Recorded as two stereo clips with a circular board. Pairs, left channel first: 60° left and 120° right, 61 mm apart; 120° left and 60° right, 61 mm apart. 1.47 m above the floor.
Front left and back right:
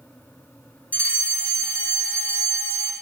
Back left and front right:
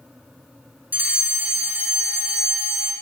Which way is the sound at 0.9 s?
Straight ahead.